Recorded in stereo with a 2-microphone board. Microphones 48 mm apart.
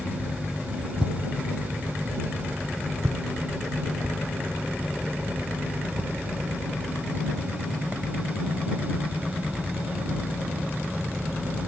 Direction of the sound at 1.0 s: 20° right (ahead or behind).